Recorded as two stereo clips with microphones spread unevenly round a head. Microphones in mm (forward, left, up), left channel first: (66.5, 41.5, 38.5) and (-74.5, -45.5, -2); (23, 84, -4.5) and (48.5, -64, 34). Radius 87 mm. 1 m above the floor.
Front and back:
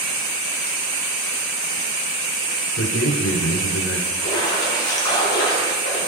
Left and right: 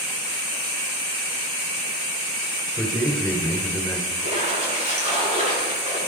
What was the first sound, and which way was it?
A man speaking, 15° left.